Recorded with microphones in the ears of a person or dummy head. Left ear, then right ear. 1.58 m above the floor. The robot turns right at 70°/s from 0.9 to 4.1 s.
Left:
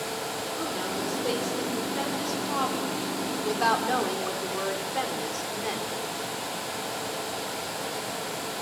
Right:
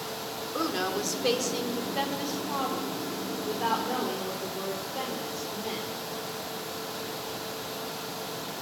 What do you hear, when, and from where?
0.5 s a woman speaking: 105° right, 4 m; by 5.9 s 120° left, 4 m